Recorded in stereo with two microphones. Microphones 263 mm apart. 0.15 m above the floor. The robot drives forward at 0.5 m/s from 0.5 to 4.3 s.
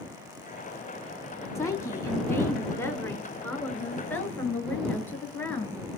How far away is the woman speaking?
About 1.4 m.